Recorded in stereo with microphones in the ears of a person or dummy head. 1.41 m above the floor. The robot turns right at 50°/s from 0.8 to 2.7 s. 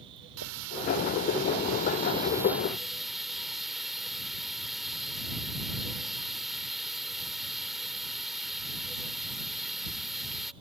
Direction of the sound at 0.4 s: 95° right.